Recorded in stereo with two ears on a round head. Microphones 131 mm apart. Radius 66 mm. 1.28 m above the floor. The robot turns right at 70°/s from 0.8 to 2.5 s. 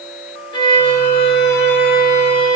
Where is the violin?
30° left, 2 m; by 2.6 s 150° left, 2 m.